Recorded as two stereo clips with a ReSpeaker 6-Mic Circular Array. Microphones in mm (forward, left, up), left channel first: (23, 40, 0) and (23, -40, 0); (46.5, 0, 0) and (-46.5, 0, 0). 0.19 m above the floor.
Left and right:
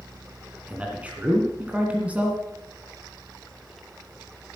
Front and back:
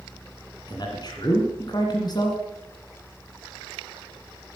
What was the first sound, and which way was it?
A man speaking, 20° right.